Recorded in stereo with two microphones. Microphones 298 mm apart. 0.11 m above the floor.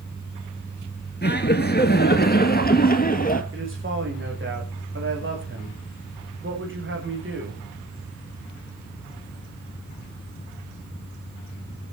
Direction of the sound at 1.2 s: 30° left (ahead or behind).